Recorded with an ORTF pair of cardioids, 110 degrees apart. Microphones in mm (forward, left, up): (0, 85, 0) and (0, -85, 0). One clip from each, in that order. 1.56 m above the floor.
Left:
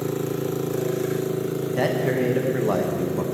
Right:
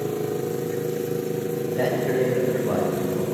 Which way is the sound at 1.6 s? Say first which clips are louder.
Left 1 dB; 35° left.